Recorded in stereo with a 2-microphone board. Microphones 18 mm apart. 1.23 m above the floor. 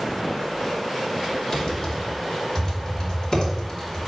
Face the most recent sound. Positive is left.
turn(degrees=40)  # may be behind; listen again after turning